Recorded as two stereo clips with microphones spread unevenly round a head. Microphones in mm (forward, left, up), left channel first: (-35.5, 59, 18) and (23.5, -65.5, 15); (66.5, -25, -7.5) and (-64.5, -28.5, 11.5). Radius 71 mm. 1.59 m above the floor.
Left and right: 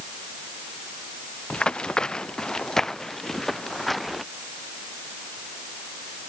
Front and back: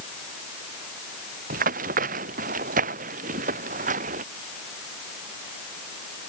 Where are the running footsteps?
160° right; by 4.2 s 155° right.